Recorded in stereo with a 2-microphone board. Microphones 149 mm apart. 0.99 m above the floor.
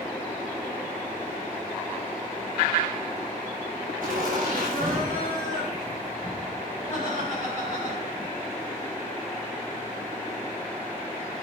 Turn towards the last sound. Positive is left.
turn(degrees=-60)  # may be behind; listen again after turning